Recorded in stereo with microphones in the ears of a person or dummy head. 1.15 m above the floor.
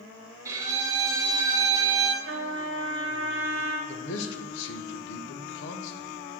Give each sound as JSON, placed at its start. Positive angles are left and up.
{"t": 0.5, "sound": "a violin", "side_deg": -20, "distance_m": 0.7}
{"t": 2.2, "sound": "a trumpet", "side_deg": -70, "distance_m": 1.3}
{"t": 3.9, "sound": "a man speaking", "side_deg": 65, "distance_m": 0.6}